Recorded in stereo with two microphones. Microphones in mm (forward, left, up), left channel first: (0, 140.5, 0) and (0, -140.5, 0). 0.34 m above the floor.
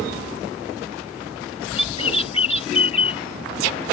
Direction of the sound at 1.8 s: 20° left (ahead or behind).